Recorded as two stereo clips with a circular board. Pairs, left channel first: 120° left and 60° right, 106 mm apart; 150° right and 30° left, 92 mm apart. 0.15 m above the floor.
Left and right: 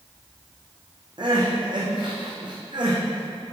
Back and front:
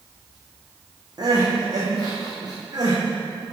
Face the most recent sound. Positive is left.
turn(degrees=-15)